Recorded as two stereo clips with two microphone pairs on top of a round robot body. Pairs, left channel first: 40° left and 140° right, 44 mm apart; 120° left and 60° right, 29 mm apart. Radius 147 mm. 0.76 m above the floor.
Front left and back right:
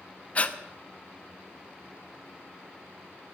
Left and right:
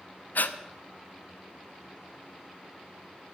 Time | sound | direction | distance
0.3 | breathing | 100° left | 0.9 m